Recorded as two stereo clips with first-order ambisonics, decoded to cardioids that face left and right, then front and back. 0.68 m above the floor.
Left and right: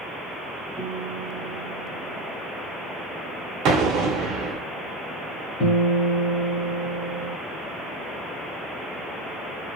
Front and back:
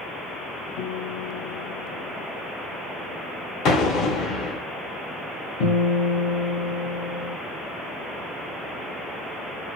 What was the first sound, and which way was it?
A guitar, 5° right.